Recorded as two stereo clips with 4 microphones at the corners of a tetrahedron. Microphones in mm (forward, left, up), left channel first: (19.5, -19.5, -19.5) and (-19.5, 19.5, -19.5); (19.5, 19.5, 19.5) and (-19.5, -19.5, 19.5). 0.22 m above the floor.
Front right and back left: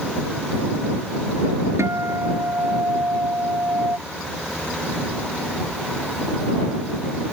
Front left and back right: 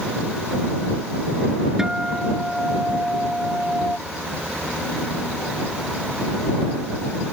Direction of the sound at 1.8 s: 145° left.